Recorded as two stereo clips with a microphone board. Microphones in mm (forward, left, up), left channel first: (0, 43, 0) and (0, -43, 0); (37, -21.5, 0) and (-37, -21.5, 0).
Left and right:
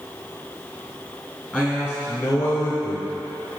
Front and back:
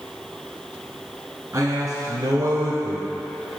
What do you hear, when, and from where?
1.5 s a man speaking: 160° left, 1.3 m; by 3.6 s 125° left, 2 m